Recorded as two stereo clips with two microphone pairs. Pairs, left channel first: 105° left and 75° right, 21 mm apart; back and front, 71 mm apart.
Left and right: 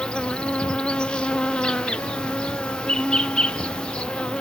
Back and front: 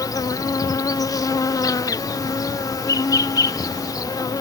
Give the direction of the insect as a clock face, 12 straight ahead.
7 o'clock.